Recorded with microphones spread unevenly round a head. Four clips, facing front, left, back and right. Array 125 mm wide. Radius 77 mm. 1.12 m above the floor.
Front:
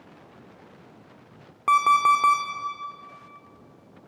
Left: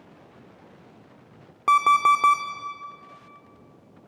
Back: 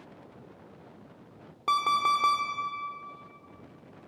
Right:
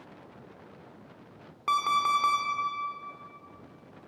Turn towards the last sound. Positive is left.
turn(degrees=100)